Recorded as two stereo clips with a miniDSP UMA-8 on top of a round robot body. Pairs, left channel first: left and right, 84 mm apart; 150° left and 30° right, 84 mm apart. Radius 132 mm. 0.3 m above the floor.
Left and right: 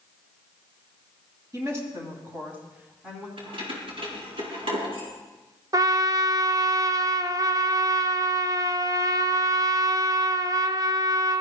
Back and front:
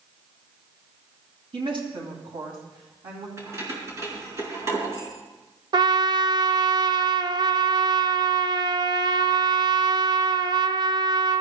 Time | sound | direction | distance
1.5 | a woman speaking | 40° right | 3.5 m
3.4 | keys jangling | 90° right | 4.5 m
5.7 | a trumpet | 50° right | 0.9 m